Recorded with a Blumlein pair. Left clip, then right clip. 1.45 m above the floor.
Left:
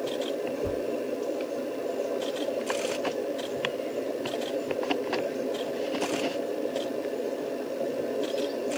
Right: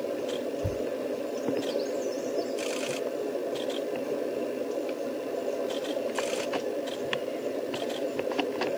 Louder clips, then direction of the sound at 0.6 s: Left 2 dB; 25° right.